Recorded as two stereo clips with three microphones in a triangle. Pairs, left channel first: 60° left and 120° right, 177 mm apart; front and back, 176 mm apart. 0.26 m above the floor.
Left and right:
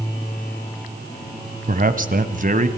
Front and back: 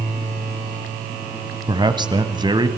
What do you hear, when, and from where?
1.7 s a man speaking: 125° right, 1.4 m